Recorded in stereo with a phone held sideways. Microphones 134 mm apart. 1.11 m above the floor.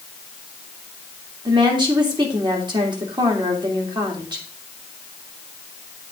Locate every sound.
1.4 s a woman speaking: 35° right (ahead or behind), 2.5 m